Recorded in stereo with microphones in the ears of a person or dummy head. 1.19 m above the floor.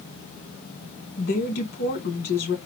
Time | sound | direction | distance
1.2 | a woman speaking | 50° left (ahead or behind) | 1.6 m